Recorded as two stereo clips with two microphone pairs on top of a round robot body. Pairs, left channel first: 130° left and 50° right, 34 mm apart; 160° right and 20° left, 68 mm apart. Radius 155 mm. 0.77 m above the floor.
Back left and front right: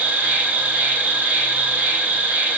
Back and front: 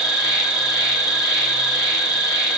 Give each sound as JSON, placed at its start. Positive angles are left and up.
{"t": 0.0, "sound": "an insect", "azimuth_deg": -65, "distance_m": 1.1}